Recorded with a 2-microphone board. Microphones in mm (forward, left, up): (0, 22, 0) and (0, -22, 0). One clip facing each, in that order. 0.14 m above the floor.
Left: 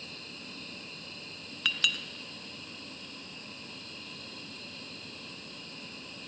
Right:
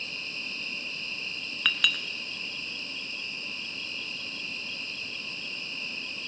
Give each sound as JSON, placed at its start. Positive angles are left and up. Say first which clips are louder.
{"t": 0.0, "sound": "an insect", "louder": "right 9 dB", "side_deg": -70, "distance_m": 1.2}
{"t": 1.6, "sound": "a clink", "louder": "right 4 dB", "side_deg": -25, "distance_m": 0.7}